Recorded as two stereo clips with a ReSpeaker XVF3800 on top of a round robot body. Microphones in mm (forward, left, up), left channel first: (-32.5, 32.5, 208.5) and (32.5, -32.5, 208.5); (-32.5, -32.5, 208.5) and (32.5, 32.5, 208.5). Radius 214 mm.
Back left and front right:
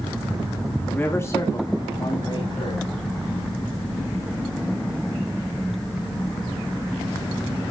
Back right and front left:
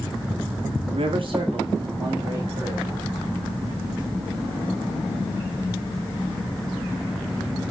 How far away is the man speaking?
About 1.8 m.